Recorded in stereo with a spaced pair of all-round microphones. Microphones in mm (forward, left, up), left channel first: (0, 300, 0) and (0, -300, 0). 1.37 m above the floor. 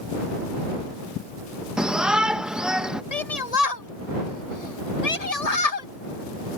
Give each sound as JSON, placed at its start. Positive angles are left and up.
{"t": 1.8, "sound": "a shout", "side_deg": 0}
{"t": 3.1, "sound": "a shout", "side_deg": 85}